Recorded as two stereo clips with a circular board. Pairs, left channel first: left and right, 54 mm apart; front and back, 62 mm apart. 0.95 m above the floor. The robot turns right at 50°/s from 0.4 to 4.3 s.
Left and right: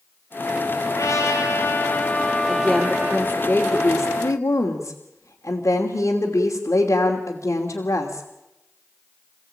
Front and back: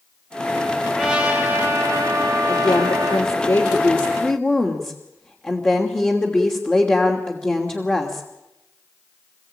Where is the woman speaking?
25° right, 3 m; by 8.3 s 65° left, 3 m.